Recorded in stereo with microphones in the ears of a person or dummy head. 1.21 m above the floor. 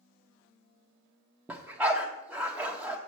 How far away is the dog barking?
About 1.0 m.